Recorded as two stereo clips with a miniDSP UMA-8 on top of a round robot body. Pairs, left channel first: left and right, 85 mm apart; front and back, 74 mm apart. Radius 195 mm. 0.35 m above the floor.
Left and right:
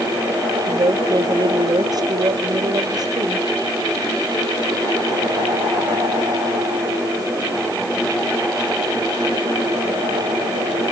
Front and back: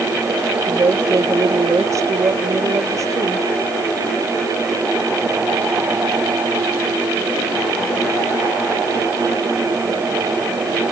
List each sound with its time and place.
0.7 s a woman speaking: 135° right